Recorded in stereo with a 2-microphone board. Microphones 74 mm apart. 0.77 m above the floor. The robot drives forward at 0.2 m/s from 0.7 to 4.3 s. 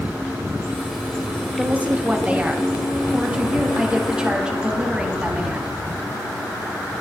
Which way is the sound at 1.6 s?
20° right (ahead or behind).